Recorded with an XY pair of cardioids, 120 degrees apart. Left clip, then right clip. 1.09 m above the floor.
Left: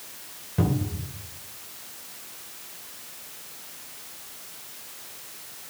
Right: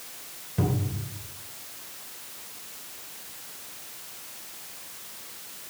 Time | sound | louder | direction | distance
0.6 | a cupboard door | left 2 dB | 15° left | 2.5 m